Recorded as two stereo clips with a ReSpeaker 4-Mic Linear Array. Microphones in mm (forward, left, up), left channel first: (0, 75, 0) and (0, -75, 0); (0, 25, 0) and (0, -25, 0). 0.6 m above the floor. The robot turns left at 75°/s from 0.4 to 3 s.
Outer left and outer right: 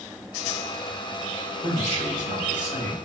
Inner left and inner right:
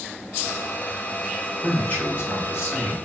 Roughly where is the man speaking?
Behind left.